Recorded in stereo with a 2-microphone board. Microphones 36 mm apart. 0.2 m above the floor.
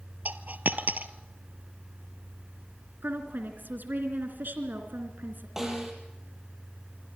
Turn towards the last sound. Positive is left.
turn(degrees=-10)  # may be behind; listen again after turning